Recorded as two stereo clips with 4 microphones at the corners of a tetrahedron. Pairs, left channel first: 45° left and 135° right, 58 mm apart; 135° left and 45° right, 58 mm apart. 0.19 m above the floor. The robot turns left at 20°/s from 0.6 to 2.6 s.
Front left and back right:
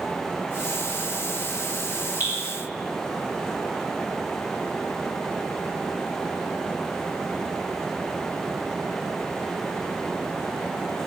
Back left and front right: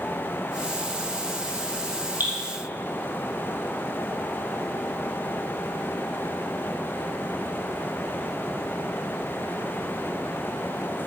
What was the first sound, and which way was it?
Dripping, 10° left.